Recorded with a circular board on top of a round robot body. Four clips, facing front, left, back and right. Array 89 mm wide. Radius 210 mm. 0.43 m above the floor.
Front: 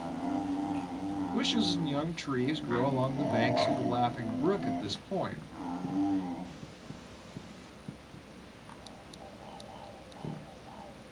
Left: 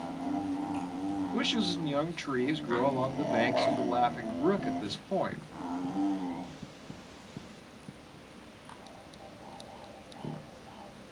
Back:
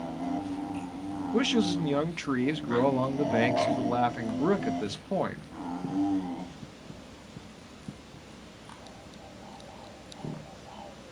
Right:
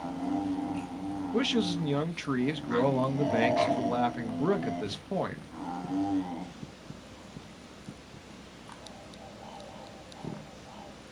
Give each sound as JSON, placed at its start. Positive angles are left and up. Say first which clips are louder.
{"t": 1.3, "sound": "a man speaking", "louder": "right 3 dB, back 6 dB", "azimuth_deg": -170, "distance_m": 1.3}